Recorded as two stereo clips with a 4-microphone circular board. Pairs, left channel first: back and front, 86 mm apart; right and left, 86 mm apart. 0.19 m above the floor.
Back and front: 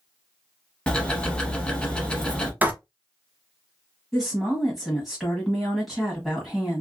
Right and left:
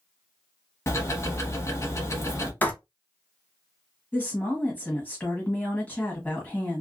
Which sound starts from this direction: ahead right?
Writing, at 2.6 s.